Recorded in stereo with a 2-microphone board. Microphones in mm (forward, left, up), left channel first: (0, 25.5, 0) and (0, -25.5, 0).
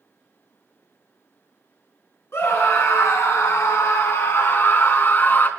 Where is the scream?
60° left (ahead or behind), 4 m; by 5.5 s 45° left (ahead or behind), 3.5 m.